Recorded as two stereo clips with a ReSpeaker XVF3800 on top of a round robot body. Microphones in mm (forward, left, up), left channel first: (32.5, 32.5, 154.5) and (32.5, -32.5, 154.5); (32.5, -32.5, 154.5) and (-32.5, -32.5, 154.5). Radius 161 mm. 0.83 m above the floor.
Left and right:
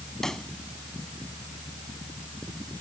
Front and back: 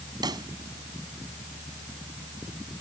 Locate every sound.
0.2 s a pop: 175° left